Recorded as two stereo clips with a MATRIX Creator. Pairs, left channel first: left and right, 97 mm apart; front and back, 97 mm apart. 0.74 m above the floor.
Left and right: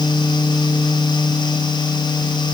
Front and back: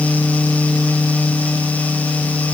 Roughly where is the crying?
No crying in this recording.